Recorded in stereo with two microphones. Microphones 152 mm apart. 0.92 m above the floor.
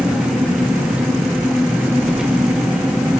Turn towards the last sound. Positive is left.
turn(degrees=-5)  # may be behind; listen again after turning